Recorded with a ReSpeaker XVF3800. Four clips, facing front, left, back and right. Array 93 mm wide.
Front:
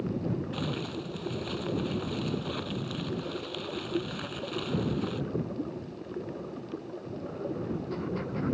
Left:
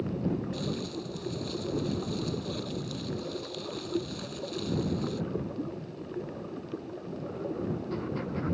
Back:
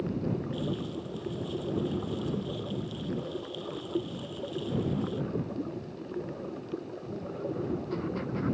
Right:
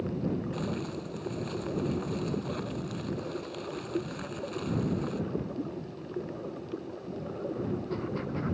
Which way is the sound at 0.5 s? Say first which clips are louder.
Even, even; 30° right.